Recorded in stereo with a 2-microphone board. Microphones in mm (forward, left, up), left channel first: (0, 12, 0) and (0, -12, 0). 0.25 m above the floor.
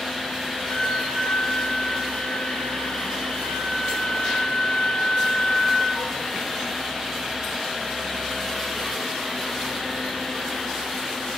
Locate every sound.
0.7 s a flute: 75° left (ahead or behind), 1.0 m